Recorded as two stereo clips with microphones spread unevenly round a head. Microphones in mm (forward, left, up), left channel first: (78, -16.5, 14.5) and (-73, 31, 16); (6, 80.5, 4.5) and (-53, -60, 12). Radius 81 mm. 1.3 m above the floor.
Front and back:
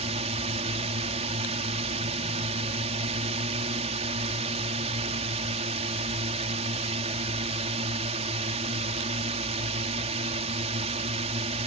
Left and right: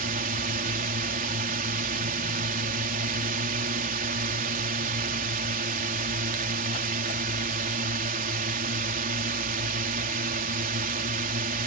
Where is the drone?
145° right.